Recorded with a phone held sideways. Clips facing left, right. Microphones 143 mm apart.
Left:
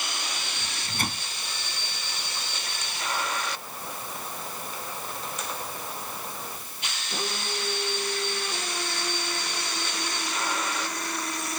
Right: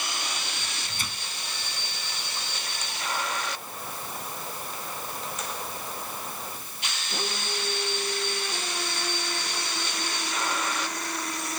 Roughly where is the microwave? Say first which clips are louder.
Left 5 dB; left.